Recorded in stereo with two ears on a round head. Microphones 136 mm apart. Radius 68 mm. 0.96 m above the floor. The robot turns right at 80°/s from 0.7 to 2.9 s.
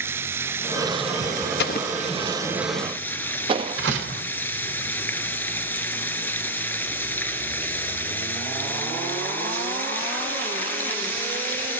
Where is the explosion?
70° left (ahead or behind), 0.7 m; by 3.8 s 35° right (ahead or behind), 0.7 m.